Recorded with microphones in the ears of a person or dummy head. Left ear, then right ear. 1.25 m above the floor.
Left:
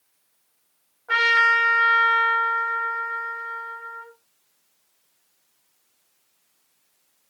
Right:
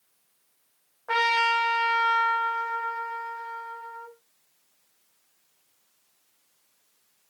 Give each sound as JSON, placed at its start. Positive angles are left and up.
{"t": 1.1, "sound": "a trumpet", "side_deg": -25, "distance_m": 1.4}